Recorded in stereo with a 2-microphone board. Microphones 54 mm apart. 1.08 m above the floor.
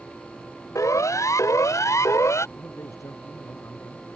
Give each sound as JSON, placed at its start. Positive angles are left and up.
{"t": 0.8, "sound": "a siren", "side_deg": 85}
{"t": 2.6, "sound": "a man speaking", "side_deg": 70}